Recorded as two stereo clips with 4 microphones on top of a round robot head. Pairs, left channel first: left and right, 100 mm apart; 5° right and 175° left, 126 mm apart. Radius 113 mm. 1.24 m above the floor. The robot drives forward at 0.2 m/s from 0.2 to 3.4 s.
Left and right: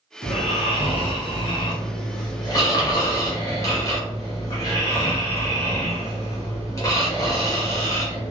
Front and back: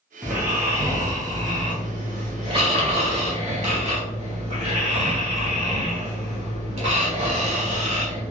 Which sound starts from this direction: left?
Snoring, at 0.2 s.